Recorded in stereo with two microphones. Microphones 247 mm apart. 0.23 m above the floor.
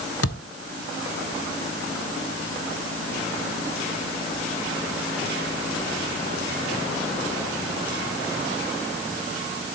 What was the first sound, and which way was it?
A thud, 75° left (ahead or behind).